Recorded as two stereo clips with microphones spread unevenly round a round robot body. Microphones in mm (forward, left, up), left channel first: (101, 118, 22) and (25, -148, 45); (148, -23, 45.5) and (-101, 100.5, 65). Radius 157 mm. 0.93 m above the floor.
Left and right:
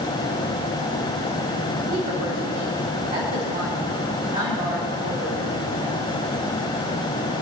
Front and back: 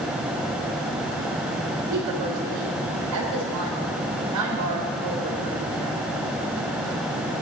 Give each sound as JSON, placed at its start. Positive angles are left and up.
{"t": 1.9, "sound": "a woman speaking", "azimuth_deg": -170, "distance_m": 2.5}